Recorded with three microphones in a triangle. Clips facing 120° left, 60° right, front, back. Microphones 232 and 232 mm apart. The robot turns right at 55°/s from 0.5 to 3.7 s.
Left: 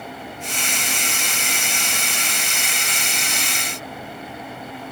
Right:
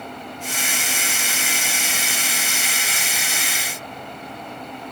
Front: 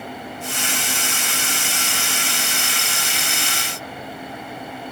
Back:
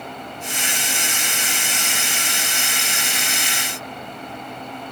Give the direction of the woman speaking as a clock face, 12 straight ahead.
I don't hear a woman speaking.